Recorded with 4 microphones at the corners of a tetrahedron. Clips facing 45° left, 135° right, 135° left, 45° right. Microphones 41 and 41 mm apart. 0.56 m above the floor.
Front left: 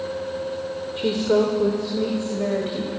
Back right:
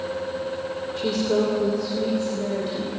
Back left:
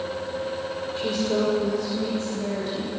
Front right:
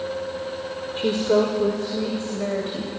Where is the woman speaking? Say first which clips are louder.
Front left 3 dB, front right 5 dB; 10° right, 2 m; by 2.9 s 5° left, 3.5 m.